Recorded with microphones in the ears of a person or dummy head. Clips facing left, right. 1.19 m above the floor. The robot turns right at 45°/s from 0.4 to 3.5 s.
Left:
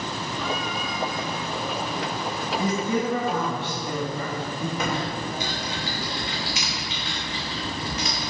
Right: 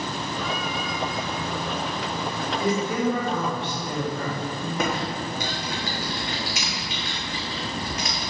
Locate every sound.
2.6 s a man speaking: 80° left, 1.9 m; by 4.7 s 120° left, 1.9 m
4.8 s typing on a keyboard: 45° right (ahead or behind), 1.0 m